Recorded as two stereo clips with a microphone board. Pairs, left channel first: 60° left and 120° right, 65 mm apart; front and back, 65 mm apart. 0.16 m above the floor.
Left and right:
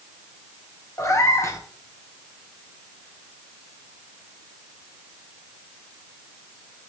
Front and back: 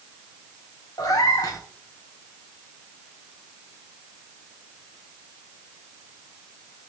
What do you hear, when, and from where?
1.0 s a cat meowing: 15° left, 2.5 m